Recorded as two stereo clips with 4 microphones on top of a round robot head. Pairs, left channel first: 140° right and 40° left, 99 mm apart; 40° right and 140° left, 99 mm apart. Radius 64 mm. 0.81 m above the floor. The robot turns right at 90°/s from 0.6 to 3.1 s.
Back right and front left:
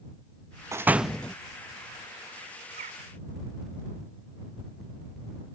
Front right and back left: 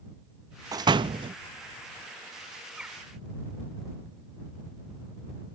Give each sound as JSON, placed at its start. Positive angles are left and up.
{"t": 0.7, "sound": "a door slam", "azimuth_deg": 95}
{"t": 2.8, "sound": "a bird", "azimuth_deg": 50}